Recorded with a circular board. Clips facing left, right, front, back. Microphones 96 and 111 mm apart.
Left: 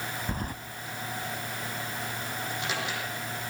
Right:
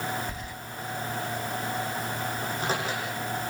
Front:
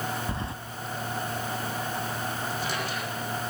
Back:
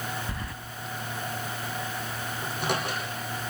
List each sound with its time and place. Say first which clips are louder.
0.3 s keys jangling: left 4 dB, front 4 dB; 60° left, 1.2 m
2.4 s a microwave: right 3 dB, back 1 dB; 145° right, 9.5 m